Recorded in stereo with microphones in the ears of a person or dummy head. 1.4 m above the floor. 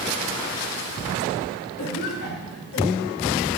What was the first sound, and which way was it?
A cough, 85° left.